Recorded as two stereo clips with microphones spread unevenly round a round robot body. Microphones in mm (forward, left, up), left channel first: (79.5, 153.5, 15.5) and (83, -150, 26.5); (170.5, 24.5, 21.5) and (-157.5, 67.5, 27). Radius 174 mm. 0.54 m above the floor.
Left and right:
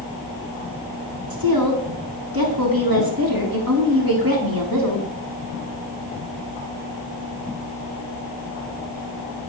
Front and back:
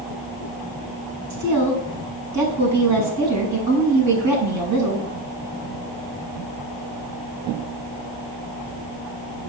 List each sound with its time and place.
1.3 s a woman speaking: 145° right, 6 m